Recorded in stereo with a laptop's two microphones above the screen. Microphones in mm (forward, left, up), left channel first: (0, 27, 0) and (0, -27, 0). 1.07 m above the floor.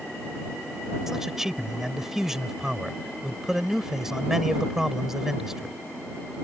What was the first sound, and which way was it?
A man speaking, 5° right (ahead or behind).